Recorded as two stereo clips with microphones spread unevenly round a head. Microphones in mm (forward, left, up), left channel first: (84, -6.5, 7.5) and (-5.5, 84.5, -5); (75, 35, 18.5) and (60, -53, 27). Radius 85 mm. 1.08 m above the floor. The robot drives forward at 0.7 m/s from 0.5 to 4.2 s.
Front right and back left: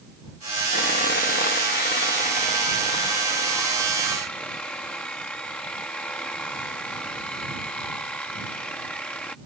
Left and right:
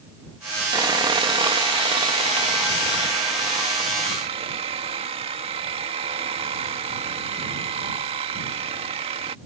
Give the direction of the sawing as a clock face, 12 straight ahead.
2 o'clock.